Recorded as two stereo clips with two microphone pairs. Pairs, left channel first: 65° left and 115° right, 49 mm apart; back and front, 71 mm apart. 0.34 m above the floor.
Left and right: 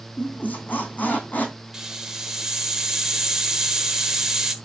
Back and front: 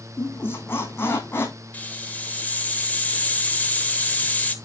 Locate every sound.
0.2 s a squeak: 125° left, 2.5 m
1.7 s a hiss: 175° right, 1.3 m